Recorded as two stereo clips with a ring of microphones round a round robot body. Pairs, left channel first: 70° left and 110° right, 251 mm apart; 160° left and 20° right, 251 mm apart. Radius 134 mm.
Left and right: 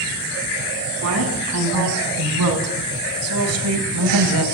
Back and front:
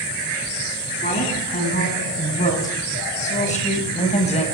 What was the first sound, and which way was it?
A woman speaking, 145° right.